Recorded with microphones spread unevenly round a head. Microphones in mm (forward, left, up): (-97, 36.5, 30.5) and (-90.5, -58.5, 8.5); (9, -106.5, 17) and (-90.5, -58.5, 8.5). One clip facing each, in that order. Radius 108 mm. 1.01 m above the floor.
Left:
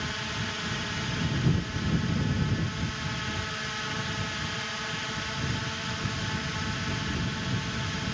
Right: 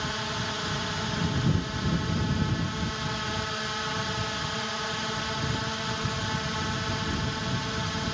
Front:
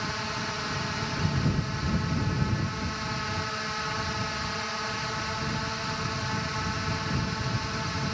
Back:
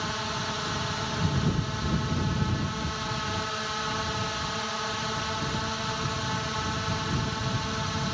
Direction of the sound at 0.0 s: 130° right.